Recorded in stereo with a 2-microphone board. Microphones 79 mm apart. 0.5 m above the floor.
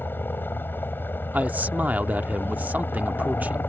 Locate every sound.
0.0 s a helicopter: 25° left (ahead or behind)
1.3 s a man speaking: 20° right (ahead or behind)